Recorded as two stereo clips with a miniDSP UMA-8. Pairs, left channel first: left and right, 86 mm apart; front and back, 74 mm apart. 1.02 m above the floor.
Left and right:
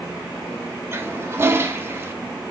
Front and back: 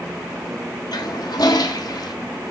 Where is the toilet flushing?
30° right, 1.1 m.